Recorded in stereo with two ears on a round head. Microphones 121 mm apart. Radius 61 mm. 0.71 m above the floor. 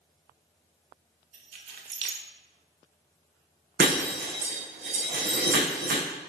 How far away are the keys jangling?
About 1.1 m.